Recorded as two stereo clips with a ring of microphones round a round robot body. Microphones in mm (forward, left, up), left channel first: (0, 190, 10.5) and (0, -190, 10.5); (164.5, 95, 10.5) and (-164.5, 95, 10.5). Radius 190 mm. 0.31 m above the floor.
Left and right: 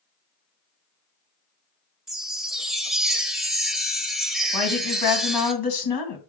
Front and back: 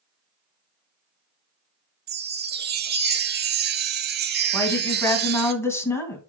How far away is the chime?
About 1.0 m.